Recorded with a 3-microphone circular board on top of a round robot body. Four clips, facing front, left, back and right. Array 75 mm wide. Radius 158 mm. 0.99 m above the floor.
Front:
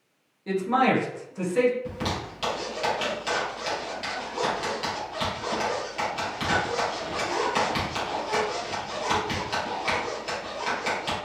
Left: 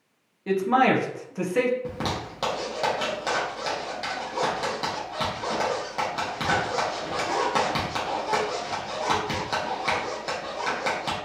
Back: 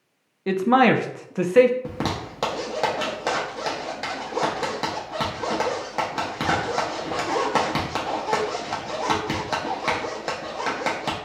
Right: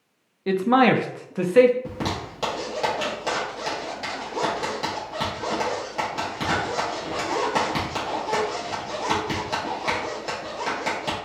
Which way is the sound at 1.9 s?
175° left.